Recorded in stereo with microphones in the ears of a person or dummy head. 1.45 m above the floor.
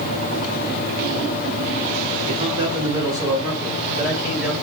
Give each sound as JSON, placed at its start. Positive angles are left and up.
{"t": 2.2, "sound": "a man speaking", "side_deg": -30, "distance_m": 3.5}